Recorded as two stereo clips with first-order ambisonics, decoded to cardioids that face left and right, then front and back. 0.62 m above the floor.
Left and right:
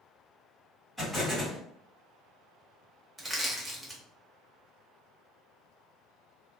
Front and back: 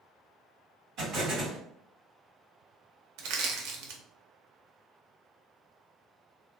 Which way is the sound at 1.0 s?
175° right.